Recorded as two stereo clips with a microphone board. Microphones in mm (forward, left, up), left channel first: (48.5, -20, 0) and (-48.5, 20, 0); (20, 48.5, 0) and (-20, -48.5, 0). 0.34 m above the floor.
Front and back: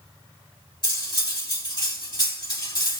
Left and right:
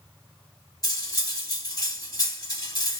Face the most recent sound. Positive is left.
turn(degrees=20)